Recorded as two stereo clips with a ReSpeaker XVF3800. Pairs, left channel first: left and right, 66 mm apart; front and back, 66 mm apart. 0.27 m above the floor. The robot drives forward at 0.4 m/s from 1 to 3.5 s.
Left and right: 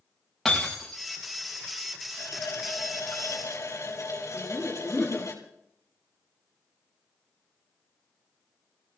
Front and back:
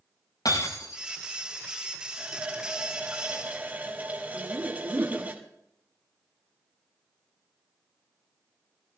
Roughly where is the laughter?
Behind.